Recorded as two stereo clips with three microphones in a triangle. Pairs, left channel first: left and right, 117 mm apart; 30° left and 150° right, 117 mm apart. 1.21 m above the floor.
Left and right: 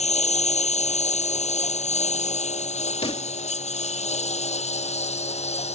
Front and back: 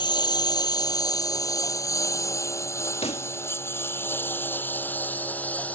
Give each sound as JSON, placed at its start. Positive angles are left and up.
{"t": 0.0, "sound": "a lawn mower", "azimuth_deg": 80}
{"t": 3.0, "sound": "a pop", "azimuth_deg": 55}